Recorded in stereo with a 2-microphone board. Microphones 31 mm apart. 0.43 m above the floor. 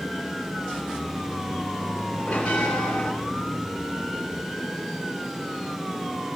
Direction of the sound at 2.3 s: 50° left (ahead or behind).